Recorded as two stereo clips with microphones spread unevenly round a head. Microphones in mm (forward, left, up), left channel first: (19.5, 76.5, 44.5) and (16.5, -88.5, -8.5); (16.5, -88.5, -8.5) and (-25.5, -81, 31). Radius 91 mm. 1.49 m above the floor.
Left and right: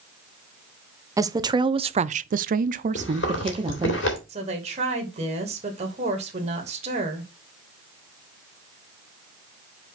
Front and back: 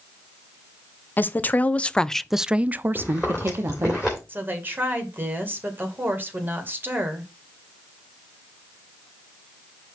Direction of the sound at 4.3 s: 145° right.